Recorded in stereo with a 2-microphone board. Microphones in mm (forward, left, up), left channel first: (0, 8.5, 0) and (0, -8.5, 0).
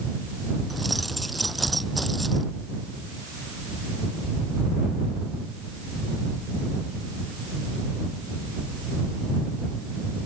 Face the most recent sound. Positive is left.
turn(degrees=-5)  # may be behind; listen again after turning